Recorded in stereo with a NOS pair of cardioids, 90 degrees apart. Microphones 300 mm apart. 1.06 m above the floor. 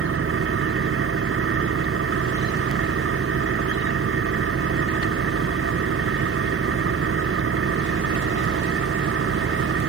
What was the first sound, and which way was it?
An engine running, 45° right.